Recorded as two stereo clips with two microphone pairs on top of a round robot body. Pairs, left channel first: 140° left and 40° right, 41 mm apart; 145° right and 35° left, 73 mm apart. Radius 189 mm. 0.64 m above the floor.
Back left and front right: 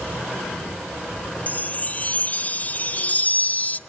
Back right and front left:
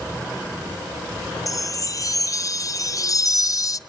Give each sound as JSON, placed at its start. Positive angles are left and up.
{"t": 1.5, "sound": "a chime", "azimuth_deg": -170, "distance_m": 0.8}